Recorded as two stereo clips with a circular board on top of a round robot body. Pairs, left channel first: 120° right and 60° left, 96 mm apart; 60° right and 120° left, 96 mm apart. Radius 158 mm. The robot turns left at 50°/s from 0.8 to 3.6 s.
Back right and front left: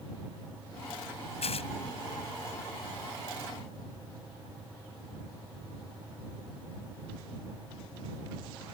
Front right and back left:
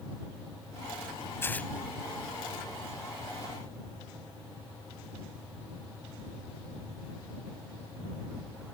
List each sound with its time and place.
1.4 s tearing paper: 125° right; by 1.7 s 140° right